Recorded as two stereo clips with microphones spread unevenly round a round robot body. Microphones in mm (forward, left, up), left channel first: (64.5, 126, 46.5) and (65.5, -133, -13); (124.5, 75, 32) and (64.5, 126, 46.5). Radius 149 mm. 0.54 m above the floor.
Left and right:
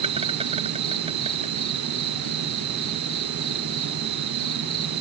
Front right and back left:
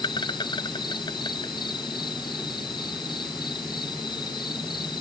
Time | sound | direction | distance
0.0 | an insect | 20° right | ?